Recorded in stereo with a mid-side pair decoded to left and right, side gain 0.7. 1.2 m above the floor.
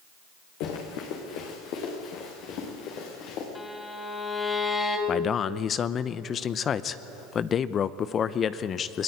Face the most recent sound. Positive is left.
turn(degrees=35)